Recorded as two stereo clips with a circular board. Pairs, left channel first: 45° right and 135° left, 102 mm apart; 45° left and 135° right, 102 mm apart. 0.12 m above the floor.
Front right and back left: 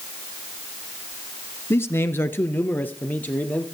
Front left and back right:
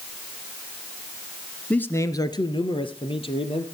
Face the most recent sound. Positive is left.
turn(degrees=30)